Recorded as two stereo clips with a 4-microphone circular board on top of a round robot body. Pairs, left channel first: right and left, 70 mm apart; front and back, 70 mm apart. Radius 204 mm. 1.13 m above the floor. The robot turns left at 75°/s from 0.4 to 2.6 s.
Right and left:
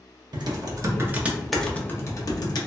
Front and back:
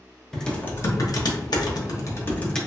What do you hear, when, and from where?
0.3 s typing on a keyboard: 85° left, 0.7 m; by 2.6 s 80° right, 0.7 m